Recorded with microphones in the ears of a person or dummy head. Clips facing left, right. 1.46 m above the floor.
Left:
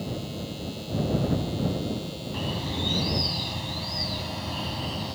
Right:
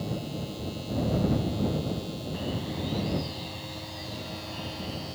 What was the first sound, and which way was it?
A bird, 60° left (ahead or behind).